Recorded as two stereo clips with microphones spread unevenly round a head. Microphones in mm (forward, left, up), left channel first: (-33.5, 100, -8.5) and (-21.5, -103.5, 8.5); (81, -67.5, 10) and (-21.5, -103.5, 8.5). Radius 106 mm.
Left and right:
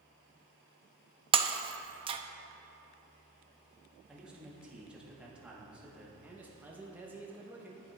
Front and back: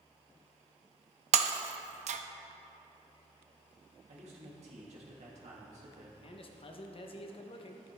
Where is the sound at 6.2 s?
5° right, 1.0 m.